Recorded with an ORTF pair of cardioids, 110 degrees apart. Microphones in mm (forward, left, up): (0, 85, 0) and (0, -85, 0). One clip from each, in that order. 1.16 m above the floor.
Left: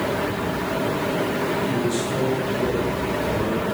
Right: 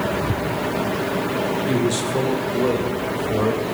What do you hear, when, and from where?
1.7 s a man speaking: 25° right, 2.5 m; by 3.6 s 45° right, 5 m